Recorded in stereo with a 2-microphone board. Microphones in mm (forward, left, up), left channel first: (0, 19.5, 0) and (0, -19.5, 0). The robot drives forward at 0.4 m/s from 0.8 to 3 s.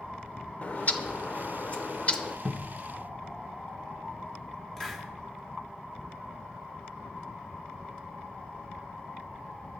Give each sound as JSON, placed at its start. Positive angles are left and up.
{"t": 0.6, "sound": "a bird", "side_deg": 40, "distance_m": 0.7}
{"t": 2.5, "sound": "a cupboard door", "side_deg": -5, "distance_m": 0.6}
{"t": 4.8, "sound": "a hiss", "side_deg": 10, "distance_m": 1.5}